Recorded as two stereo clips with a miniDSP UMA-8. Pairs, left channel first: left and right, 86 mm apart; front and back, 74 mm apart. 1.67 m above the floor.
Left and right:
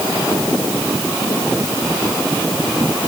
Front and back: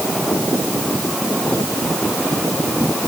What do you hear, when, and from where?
Only background noise.